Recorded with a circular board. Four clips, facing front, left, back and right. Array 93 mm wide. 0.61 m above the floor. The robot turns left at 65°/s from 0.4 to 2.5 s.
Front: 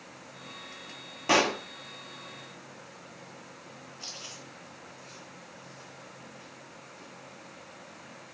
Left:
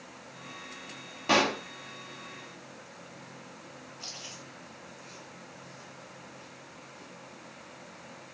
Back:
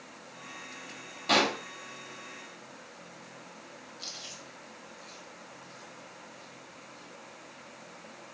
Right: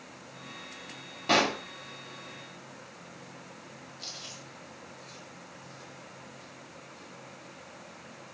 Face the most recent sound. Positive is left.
turn(degrees=40)